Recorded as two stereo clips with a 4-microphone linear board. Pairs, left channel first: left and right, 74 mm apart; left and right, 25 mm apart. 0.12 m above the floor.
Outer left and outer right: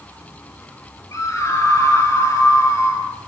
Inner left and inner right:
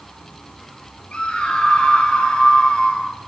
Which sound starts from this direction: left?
A scream, at 1.1 s.